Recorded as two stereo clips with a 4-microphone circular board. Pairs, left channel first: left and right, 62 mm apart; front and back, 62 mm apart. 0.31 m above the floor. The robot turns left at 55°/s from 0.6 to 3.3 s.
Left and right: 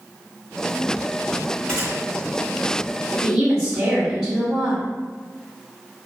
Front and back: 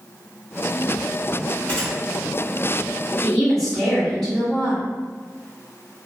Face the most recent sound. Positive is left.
turn(degrees=-50)